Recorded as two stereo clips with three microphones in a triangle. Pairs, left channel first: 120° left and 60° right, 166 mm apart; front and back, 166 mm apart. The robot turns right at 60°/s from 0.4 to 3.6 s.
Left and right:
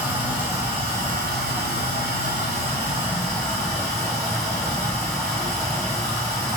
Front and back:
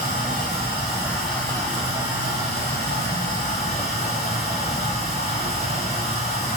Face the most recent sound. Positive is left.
turn(degrees=50)